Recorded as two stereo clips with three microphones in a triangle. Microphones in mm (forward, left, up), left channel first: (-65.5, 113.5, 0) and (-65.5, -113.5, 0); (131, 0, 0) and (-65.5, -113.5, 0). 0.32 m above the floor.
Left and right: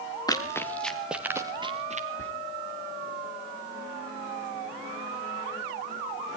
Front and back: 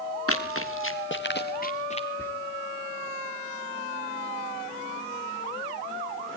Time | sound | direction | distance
0.3 | running footsteps | 15° left | 3 m
2.2 | whispering | 110° left | 4 m